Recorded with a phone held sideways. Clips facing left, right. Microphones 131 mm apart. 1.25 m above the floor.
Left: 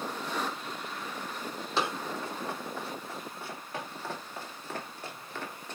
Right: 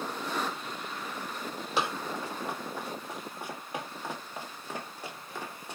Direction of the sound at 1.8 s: 10° right (ahead or behind).